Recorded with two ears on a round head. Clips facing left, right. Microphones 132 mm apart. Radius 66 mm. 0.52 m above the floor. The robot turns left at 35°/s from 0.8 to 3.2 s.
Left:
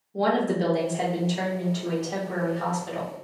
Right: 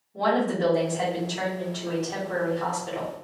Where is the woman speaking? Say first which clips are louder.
Even; 55° left, 1.4 m; by 3.1 s 25° right, 1.4 m.